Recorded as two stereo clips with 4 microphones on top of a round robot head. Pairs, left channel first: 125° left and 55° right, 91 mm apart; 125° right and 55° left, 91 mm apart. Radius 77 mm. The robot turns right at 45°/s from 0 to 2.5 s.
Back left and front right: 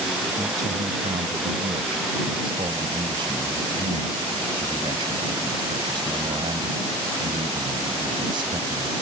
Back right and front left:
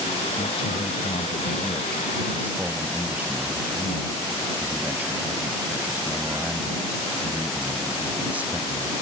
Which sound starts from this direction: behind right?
A man speaking, at 0.4 s.